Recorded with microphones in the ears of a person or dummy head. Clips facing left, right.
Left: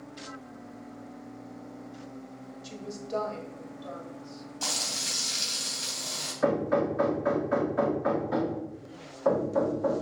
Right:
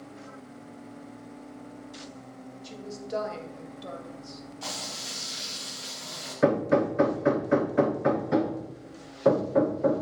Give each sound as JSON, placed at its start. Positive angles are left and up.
{"t": 2.6, "sound": "a woman speaking", "side_deg": -5, "distance_m": 1.7}
{"t": 4.6, "sound": "frying", "side_deg": 60, "distance_m": 3.0}
{"t": 6.4, "sound": "hammering", "side_deg": -25, "distance_m": 0.8}